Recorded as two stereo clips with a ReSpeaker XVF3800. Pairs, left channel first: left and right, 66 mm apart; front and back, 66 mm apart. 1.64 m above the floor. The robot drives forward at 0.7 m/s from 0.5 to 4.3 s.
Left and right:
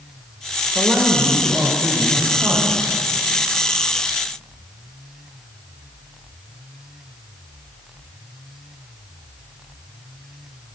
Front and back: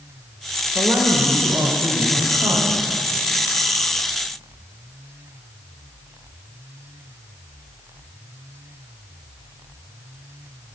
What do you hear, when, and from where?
0.8 s a woman speaking: 145° right, 1.3 m; by 2.9 s 165° right, 2.5 m